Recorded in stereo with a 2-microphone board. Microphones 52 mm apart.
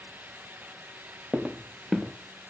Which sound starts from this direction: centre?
Footsteps, at 1.3 s.